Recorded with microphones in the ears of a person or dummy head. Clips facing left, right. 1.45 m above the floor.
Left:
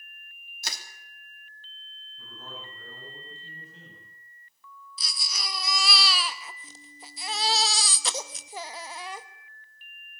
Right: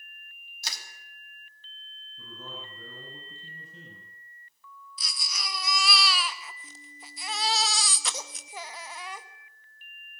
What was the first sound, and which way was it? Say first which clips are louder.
Crushing: left 2 dB; 45° left (ahead or behind).